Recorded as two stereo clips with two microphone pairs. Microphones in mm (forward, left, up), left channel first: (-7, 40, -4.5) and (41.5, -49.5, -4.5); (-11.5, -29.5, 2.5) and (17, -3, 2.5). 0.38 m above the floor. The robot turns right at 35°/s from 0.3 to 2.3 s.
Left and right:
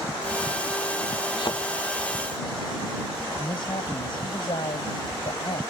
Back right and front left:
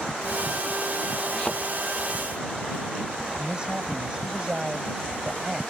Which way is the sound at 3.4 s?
105° left.